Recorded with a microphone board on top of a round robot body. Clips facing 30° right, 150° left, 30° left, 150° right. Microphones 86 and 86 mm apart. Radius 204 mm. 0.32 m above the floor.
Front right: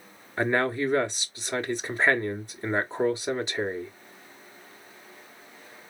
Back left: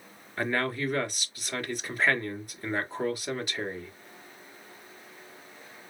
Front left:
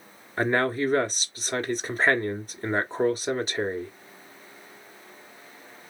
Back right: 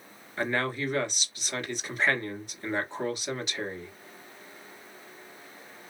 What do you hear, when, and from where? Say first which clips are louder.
0.4 s a man speaking: front right 4 dB, front left 6 dB; 15° left, 1.7 m